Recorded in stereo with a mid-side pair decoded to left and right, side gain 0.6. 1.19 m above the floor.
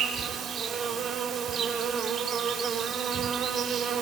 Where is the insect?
40° right, 5 m.